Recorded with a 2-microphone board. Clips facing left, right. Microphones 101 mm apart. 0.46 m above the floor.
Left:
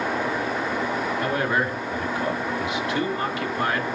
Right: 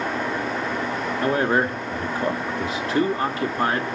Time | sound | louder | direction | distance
1.2 | a man speaking | right 6 dB | 35° right (ahead or behind) | 0.9 m